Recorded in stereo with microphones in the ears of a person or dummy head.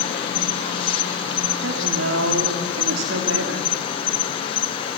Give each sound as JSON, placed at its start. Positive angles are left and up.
{"t": 0.0, "sound": "an insect", "side_deg": 30, "distance_m": 1.0}
{"t": 1.6, "sound": "a woman speaking", "side_deg": -75, "distance_m": 2.0}